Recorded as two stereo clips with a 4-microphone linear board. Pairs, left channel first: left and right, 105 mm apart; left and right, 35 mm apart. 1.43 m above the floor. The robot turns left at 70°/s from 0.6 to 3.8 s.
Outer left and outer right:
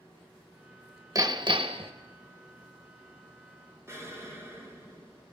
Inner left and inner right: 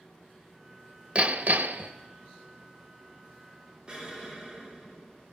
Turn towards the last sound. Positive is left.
turn(degrees=-25)  # may be behind; listen again after turning